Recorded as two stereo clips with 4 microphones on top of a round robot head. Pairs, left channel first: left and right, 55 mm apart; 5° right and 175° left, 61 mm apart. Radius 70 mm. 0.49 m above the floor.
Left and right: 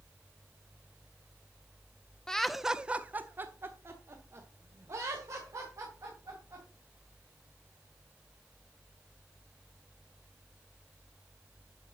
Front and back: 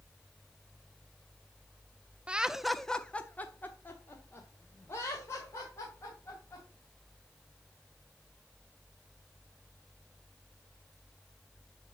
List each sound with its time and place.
2.3 s laughter: 150° left, 0.8 m; by 6.7 s 50° right, 3.5 m